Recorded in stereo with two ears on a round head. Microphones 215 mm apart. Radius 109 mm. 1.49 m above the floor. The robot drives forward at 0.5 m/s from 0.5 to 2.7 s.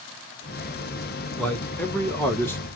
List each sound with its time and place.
1.4 s a man speaking: 5° left (ahead or behind), 1.3 m; by 2.7 s 10° left (ahead or behind), 0.7 m